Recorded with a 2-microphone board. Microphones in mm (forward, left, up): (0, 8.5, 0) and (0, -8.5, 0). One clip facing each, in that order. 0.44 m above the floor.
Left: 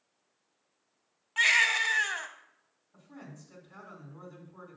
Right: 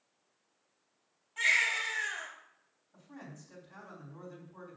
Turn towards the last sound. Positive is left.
turn(degrees=-10)  # may be behind; listen again after turning